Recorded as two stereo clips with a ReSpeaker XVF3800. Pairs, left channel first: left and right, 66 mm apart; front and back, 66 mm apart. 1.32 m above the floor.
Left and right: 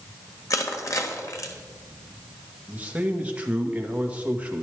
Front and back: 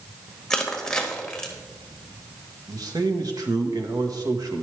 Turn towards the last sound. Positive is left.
turn(degrees=-160)